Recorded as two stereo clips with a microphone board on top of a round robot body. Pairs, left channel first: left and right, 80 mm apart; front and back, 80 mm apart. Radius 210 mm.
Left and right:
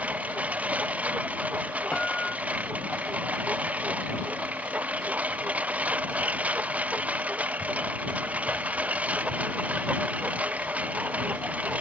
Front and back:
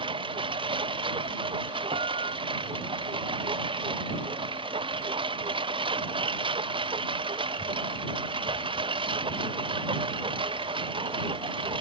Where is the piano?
170° left.